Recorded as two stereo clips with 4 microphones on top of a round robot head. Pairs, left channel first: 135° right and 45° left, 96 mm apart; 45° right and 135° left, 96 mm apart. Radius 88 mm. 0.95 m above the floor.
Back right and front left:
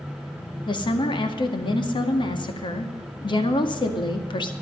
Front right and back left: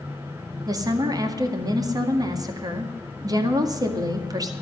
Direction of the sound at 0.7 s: 175° right.